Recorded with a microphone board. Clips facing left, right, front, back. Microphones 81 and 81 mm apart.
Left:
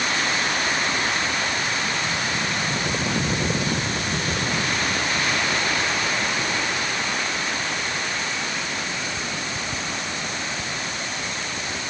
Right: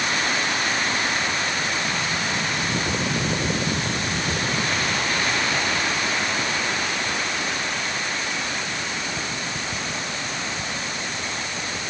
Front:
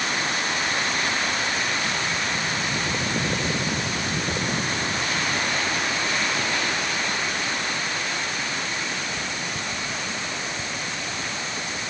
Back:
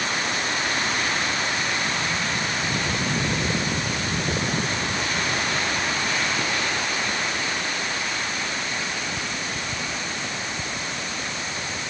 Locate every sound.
Only background noise.